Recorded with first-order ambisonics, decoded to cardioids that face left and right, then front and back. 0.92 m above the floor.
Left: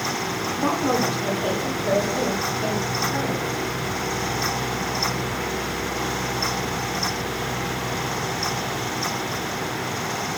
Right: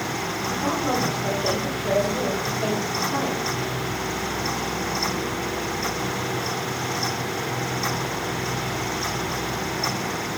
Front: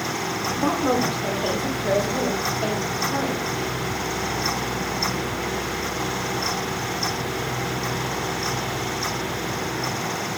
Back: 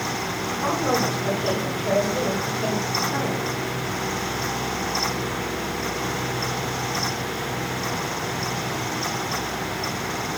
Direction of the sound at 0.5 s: 30° left.